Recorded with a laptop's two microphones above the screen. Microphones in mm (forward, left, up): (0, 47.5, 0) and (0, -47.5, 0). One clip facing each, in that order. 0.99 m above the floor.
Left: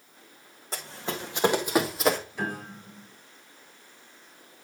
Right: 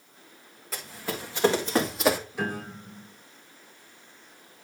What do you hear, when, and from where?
0.7 s running footsteps: 30° left (ahead or behind), 2.5 m; by 2.2 s 10° right (ahead or behind), 1.3 m
2.3 s a piano: 10° right (ahead or behind), 4.5 m